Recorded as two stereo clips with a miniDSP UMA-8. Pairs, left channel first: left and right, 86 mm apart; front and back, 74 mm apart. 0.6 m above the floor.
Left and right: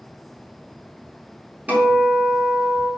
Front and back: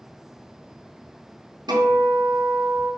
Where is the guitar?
165° right, 4 m.